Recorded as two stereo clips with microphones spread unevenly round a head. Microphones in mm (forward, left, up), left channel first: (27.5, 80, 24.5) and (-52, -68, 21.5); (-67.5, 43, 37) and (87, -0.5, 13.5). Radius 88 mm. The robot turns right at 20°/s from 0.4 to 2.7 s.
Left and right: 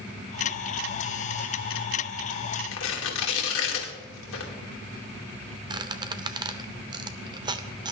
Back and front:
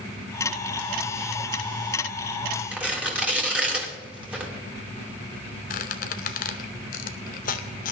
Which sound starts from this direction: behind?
A squeak, at 5.7 s.